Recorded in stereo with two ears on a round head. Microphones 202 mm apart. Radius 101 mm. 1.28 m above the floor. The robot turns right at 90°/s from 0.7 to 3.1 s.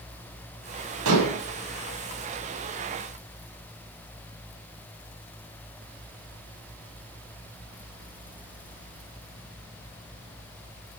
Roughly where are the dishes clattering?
Right.